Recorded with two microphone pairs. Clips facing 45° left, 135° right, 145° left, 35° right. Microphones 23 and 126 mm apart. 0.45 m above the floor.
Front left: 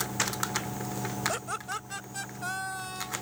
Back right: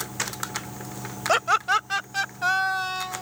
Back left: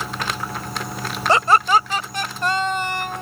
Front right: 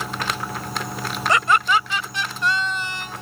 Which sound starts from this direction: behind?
Laughter, at 1.3 s.